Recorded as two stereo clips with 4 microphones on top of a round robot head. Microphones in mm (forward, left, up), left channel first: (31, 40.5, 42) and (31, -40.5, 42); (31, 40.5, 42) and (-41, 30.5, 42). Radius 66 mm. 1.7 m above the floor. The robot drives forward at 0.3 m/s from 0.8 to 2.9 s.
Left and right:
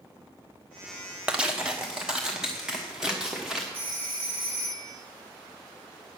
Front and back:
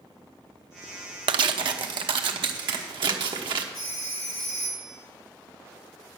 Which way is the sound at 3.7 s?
20° right.